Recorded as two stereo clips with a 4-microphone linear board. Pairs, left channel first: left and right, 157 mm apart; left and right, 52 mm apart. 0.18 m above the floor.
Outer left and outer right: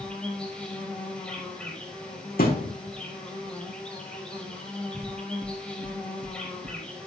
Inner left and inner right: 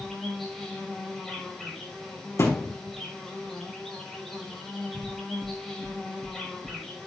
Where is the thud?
70° left (ahead or behind), 3.5 m.